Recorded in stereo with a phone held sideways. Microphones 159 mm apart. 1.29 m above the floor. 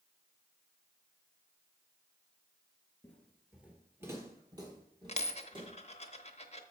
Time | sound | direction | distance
3.0 | footsteps | 10° left (ahead or behind) | 1.4 m
5.1 | a dropped coin | 40° left (ahead or behind) | 0.9 m